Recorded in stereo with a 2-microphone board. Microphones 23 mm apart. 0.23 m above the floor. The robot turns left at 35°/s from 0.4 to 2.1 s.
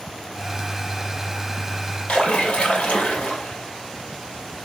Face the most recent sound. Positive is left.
turn(degrees=60)  # may be behind; listen again after turning